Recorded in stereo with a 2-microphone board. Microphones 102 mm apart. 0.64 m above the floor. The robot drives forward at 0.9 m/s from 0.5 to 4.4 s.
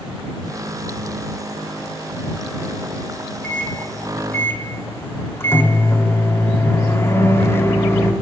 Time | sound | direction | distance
3.4 | a microwave | 15° left (ahead or behind) | 1.7 m